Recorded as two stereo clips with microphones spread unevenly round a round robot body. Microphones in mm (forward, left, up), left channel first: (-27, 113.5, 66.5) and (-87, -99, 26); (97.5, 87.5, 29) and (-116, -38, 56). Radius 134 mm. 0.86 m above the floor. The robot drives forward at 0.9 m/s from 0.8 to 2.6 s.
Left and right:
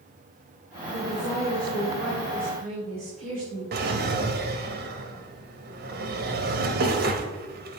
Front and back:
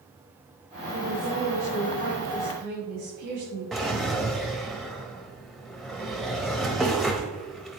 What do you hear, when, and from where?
0.9 s a woman speaking: 105° right, 3.5 m; by 3.6 s 130° right, 4 m
3.7 s a drawer: 60° right, 0.7 m